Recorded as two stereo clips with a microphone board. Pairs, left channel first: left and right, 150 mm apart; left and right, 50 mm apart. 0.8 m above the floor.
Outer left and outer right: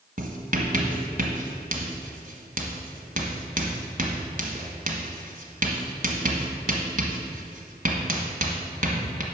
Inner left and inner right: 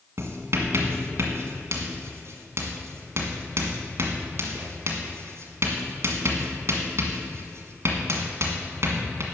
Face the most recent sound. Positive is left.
turn(degrees=-60)  # may be behind; listen again after turning